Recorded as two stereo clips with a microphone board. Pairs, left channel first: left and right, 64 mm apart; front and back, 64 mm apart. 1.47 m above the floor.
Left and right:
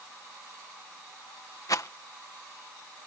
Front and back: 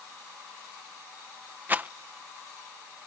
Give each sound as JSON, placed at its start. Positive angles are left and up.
{"t": 1.7, "sound": "a rattle", "azimuth_deg": 115}